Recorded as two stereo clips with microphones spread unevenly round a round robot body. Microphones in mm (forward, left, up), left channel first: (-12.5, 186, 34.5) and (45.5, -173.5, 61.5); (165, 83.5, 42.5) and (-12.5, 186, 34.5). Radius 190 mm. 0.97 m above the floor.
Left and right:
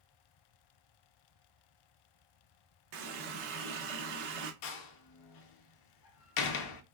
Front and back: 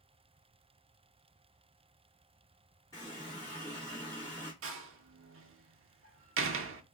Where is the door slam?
130° left, 0.6 m.